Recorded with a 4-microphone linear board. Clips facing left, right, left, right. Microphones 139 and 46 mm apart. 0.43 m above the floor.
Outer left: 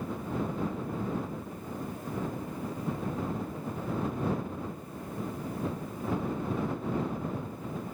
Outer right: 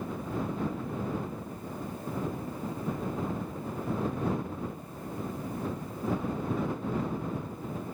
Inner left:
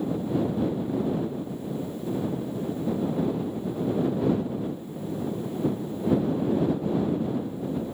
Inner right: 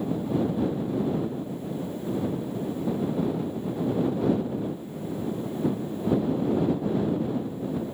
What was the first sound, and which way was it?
Only background noise.